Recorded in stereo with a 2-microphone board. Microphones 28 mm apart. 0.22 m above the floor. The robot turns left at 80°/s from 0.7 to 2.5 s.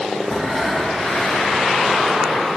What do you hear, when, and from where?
0.3 s breathing: 165° left, 3.5 m; by 1.7 s 90° left, 3.5 m